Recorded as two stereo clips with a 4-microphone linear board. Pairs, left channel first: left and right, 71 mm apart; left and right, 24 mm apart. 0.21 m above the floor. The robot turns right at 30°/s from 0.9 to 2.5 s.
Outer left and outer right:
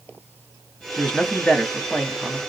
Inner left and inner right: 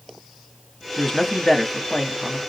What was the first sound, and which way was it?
A man speaking, 15° left (ahead or behind).